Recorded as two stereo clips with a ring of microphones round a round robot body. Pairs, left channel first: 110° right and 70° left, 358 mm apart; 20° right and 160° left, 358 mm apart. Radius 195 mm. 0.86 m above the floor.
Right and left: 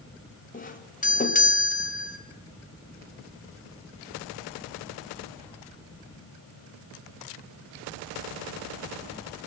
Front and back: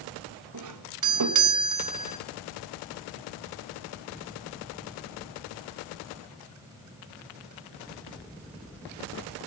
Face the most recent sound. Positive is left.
turn(degrees=-175)